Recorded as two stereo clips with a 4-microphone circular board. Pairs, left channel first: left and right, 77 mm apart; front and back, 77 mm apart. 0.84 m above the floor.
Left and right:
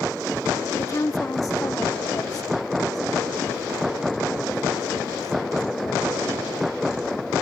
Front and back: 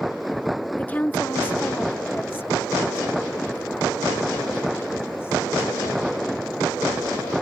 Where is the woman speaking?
60° left.